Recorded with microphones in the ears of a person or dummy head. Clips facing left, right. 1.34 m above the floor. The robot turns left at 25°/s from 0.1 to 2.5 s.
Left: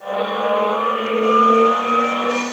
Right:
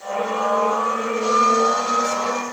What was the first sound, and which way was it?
Only background noise.